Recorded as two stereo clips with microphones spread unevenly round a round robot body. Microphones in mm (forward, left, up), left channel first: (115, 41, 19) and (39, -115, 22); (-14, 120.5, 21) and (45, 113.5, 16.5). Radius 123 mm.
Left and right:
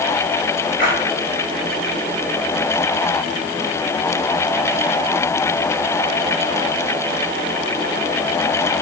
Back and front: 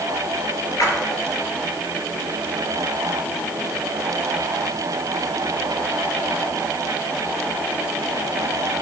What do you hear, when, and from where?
0.8 s a splash: 160° left, 2.5 m